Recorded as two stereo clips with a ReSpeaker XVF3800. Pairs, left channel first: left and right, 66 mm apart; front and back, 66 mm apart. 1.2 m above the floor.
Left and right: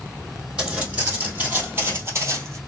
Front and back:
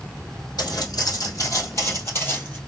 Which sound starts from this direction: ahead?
Footsteps, at 0.6 s.